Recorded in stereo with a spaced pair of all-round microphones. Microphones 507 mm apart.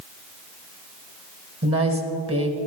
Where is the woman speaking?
25° right (ahead or behind), 1.2 m.